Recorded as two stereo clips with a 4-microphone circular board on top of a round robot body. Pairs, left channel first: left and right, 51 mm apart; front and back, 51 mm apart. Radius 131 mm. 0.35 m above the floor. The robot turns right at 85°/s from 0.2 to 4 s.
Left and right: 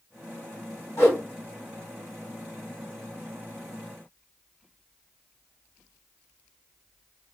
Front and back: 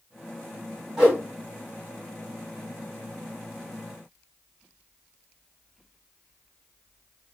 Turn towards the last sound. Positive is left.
turn(degrees=5)